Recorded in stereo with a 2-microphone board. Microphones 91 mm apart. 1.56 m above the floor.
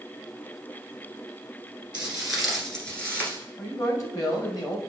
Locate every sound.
1.9 s footsteps: 10° right (ahead or behind), 1.6 m; by 3.4 s 20° left (ahead or behind), 1.6 m
3.6 s a man speaking: 40° left (ahead or behind), 1.4 m